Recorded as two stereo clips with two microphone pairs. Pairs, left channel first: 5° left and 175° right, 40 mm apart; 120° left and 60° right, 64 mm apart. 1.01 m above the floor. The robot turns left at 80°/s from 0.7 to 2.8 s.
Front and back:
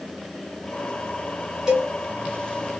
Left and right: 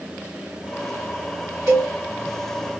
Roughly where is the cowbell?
Right.